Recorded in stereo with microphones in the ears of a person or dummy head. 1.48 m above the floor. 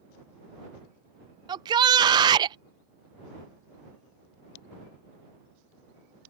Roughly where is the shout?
Right.